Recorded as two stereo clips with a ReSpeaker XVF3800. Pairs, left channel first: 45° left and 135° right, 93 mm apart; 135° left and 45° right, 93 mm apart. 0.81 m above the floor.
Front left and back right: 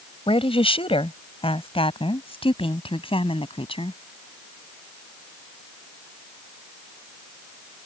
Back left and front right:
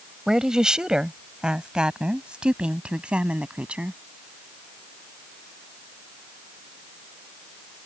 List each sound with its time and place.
0.3 s a woman speaking: 40° left; by 4.0 s 30° left